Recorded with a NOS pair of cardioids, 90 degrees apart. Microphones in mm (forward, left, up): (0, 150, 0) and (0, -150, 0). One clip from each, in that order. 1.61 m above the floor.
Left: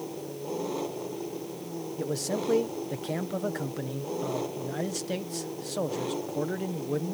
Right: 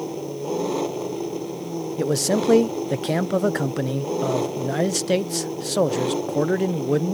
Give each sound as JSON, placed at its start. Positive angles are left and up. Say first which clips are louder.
{"t": 0.0, "sound": "an engine running", "louder": "right 8 dB", "azimuth_deg": -55}
{"t": 2.0, "sound": "a man speaking", "louder": "right 9 dB", "azimuth_deg": -60}